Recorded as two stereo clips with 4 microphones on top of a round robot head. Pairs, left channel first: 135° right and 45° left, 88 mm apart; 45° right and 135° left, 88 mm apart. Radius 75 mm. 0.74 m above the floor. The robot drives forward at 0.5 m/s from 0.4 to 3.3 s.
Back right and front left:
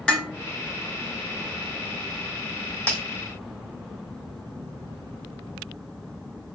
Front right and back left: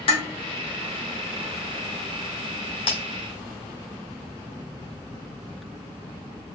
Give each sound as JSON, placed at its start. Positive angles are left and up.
{"t": 0.1, "sound": "dishes clattering", "azimuth_deg": -55, "distance_m": 2.0}
{"t": 2.9, "sound": "breaking glass", "azimuth_deg": -65, "distance_m": 2.0}